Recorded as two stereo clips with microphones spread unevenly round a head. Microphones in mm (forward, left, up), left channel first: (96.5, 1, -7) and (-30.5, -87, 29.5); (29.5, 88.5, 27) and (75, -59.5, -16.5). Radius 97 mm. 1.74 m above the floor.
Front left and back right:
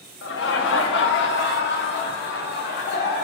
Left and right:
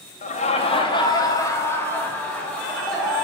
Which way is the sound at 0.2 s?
65° left.